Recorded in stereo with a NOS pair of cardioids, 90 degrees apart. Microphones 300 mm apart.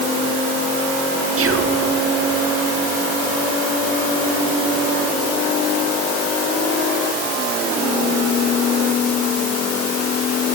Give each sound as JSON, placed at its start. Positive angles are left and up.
{"t": 1.4, "sound": "whispering", "azimuth_deg": -50, "distance_m": 2.5}